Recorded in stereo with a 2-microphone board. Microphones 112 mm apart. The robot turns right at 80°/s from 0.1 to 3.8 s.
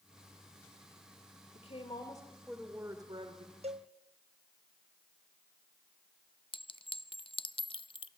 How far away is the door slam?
I don't hear a door slam.